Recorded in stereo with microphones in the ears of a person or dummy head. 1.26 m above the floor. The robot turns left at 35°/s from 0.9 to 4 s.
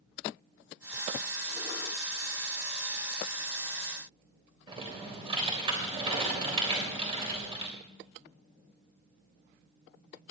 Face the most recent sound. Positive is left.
turn(degrees=-30)  # may be behind; listen again after turning